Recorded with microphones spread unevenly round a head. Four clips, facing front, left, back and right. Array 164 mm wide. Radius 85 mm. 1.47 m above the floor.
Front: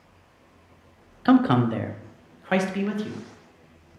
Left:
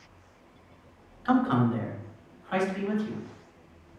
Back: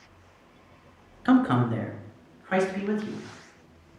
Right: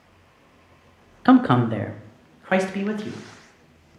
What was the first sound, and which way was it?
A man speaking, 75° right.